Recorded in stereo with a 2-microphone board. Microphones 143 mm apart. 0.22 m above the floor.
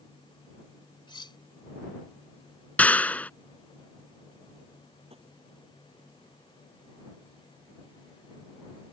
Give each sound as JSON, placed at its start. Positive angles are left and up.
{"t": 1.1, "sound": "cutlery clinking", "side_deg": 35}
{"t": 2.8, "sound": "a clap", "side_deg": 10}
{"t": 5.1, "sound": "tapping", "side_deg": -45}